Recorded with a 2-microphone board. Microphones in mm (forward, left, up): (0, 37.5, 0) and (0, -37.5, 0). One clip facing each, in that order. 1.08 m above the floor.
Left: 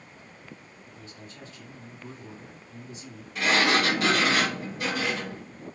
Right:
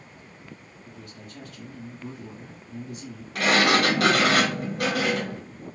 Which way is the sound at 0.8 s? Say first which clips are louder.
Right 3 dB; 60° right (ahead or behind).